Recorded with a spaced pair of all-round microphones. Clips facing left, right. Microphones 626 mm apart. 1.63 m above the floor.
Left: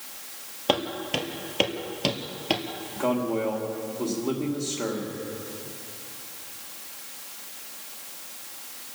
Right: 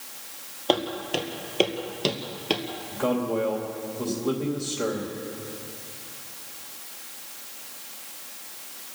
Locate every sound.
0.7 s footsteps: 35° left (ahead or behind), 2.5 m; by 2.6 s 10° left (ahead or behind), 2 m
2.9 s a man speaking: 40° right (ahead or behind), 2.5 m